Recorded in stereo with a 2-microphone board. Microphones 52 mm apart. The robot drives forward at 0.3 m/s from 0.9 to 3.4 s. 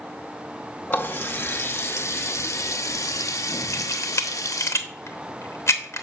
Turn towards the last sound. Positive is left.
turn(degrees=65)  # may be behind; listen again after turning